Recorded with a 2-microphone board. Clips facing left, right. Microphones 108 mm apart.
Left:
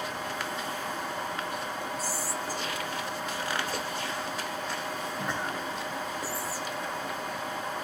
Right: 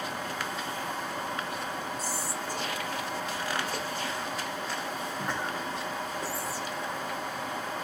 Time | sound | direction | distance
2.0 | whispering | 5° left (ahead or behind) | 0.9 m